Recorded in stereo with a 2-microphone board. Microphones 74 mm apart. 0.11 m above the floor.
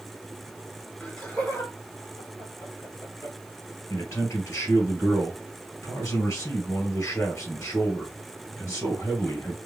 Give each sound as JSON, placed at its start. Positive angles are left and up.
{"t": 1.0, "sound": "laughter", "side_deg": 10, "distance_m": 1.8}
{"t": 3.9, "sound": "a man speaking", "side_deg": 40, "distance_m": 2.5}